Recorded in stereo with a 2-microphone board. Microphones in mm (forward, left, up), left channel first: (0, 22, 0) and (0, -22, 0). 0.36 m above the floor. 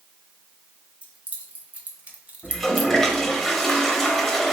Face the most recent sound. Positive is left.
turn(degrees=5)  # may be behind; listen again after turning